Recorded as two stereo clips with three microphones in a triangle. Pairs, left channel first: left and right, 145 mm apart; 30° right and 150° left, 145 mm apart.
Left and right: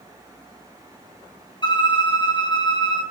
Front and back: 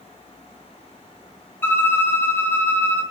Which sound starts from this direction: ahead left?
A violin, at 1.6 s.